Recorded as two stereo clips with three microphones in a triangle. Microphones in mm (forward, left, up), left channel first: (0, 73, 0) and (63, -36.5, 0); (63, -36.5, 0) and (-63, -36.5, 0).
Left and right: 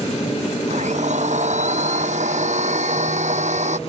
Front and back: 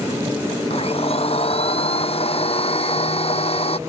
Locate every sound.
0.7 s a blender: 40° right